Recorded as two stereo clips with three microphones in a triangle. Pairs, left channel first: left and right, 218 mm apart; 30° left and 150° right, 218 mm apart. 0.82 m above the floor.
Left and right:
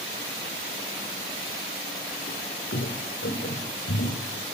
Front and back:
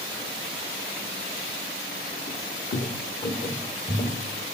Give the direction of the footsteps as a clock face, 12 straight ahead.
10 o'clock.